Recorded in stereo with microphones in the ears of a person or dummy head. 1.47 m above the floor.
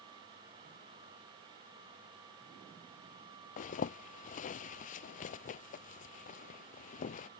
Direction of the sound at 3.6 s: 40° left (ahead or behind).